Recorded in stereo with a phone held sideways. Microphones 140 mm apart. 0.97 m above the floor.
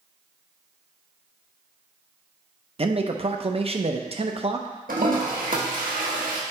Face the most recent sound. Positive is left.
turn(degrees=-85)